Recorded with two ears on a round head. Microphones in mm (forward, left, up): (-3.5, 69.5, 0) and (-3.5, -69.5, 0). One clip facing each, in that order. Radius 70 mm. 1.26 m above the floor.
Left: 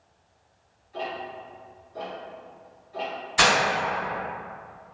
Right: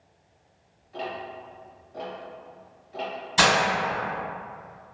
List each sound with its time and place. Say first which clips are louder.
0.9 s ticking: left 1 dB; 65° right (ahead or behind), 1.3 m
3.4 s breaking glass: right 1 dB; 75° right (ahead or behind), 1.9 m